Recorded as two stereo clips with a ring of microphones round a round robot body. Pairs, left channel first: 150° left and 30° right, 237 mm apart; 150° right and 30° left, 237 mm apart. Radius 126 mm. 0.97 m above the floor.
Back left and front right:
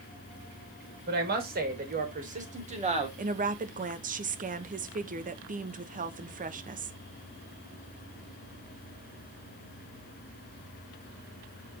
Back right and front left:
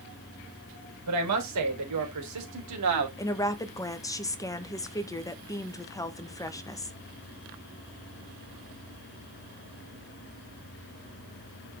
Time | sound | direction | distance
1.1 | a woman speaking | 20° left | 3.5 m
3.2 | a woman speaking | 75° right | 1.2 m